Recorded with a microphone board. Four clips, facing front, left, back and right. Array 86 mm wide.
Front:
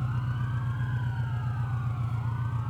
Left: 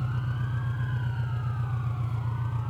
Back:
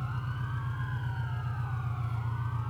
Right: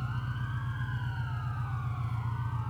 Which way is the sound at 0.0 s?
65° left.